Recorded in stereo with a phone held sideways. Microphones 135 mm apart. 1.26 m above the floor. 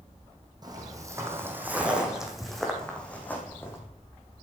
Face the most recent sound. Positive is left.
turn(degrees=20)  # may be behind; listen again after turning